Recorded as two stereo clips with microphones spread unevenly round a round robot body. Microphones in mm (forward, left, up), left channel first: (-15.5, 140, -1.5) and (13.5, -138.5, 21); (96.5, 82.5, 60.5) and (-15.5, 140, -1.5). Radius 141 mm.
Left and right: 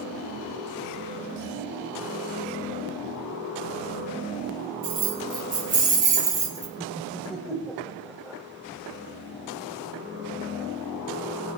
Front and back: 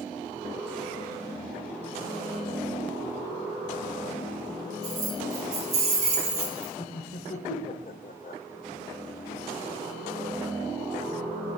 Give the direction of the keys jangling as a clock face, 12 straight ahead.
5 o'clock.